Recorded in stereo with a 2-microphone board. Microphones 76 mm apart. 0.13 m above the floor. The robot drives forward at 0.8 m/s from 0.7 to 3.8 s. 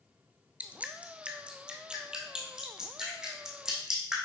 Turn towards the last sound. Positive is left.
turn(degrees=-5)  # may be behind; listen again after turning